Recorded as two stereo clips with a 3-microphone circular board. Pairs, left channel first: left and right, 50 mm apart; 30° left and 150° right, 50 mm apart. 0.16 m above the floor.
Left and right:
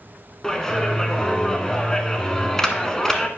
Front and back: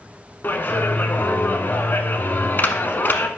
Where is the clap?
15° left, 1.0 m.